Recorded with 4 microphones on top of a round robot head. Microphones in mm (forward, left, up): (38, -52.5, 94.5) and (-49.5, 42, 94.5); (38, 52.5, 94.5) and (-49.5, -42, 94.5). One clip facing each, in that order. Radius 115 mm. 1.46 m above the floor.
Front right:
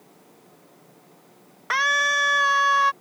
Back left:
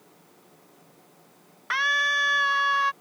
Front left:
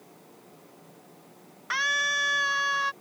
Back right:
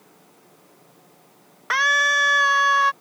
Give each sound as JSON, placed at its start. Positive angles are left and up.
{"t": 1.7, "sound": "a scream", "azimuth_deg": -95}